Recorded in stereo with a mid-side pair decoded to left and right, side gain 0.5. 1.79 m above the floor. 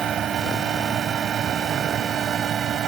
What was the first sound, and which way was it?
A fan, 55° right.